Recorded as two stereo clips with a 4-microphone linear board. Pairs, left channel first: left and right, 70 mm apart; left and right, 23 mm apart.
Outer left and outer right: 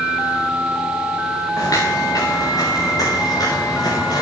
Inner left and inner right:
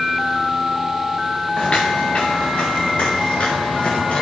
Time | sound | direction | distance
1.6 | footsteps | 55° left (ahead or behind) | 1.7 m